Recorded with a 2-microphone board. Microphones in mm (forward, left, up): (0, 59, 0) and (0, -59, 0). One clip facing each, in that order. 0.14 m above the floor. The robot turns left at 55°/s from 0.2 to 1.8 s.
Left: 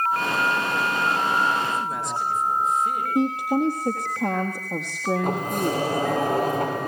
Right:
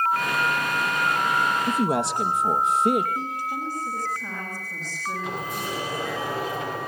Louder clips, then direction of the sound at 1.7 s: Right 4 dB; 70° right (ahead or behind).